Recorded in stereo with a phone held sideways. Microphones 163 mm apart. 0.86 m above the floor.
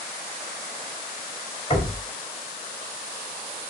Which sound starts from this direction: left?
Knocking, at 1.7 s.